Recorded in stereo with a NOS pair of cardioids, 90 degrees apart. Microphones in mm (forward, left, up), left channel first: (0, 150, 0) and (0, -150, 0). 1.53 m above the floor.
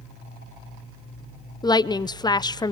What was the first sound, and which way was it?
A woman speaking, 15° left.